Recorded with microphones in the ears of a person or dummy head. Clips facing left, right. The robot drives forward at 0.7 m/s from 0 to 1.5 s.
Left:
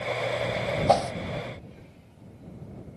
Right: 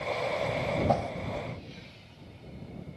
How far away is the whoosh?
About 0.6 m.